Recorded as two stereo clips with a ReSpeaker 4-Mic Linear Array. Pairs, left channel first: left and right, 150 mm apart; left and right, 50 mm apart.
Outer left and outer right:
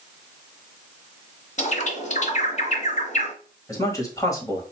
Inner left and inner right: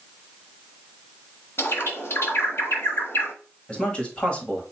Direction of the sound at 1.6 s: 55° left (ahead or behind).